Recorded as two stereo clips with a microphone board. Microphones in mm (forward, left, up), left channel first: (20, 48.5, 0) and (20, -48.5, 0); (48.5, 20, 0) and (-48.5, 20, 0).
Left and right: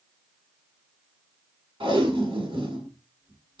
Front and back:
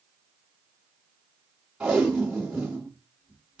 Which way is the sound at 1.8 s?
100° right.